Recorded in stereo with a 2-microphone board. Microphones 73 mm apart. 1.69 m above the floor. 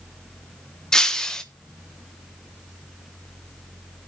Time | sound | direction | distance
0.9 | breaking glass | 10° left (ahead or behind) | 0.8 m